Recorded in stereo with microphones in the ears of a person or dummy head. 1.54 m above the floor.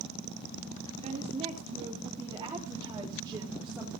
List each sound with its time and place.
1.0 s a woman speaking: 35° right (ahead or behind), 4 m; by 3.9 s 5° right (ahead or behind), 3.5 m